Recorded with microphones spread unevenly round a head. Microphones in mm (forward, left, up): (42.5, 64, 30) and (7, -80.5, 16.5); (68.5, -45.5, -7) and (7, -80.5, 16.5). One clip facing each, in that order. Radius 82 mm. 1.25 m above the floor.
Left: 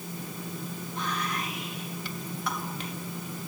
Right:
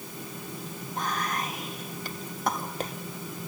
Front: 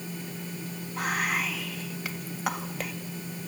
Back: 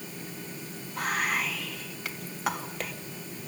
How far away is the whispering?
About 2 m.